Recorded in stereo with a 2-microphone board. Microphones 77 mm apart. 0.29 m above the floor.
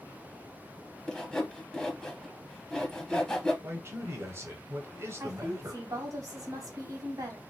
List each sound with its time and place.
1.1 s sawing: 10° left (ahead or behind), 0.8 m
3.6 s a man speaking: 35° right (ahead or behind), 1.1 m
5.2 s a woman speaking: 50° right (ahead or behind), 1.5 m